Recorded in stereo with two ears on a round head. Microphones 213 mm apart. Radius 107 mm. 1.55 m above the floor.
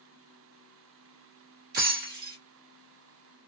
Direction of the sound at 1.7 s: 40° right (ahead or behind).